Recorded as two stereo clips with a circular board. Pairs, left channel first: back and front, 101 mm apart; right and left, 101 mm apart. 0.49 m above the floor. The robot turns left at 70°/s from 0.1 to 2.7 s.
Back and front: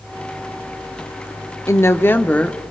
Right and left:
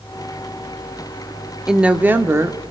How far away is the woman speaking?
About 0.9 m.